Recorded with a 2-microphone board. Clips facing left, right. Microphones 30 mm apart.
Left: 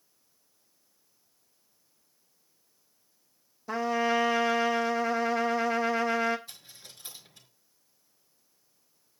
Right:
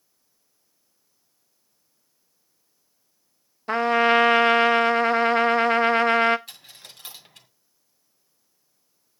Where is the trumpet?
50° right (ahead or behind), 0.6 m.